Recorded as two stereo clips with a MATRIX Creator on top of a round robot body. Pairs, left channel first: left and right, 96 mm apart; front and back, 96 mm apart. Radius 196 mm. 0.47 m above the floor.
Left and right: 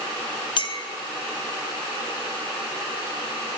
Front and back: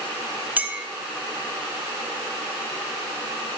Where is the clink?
110° left, 1.2 m.